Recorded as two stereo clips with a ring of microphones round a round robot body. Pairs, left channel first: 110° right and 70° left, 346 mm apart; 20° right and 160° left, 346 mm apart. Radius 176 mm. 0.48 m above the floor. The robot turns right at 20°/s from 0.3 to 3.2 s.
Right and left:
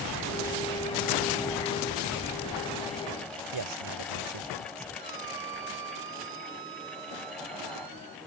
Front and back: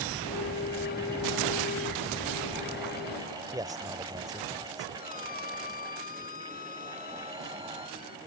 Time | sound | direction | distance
3.5 | a man speaking | 80° left | ?
5.0 | a squeak | 40° left | ?